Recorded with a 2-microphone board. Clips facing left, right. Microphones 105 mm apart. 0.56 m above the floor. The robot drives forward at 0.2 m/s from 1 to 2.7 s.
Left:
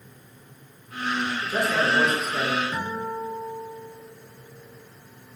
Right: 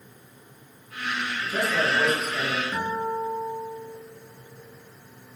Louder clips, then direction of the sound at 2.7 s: Right 2 dB; 5° left (ahead or behind).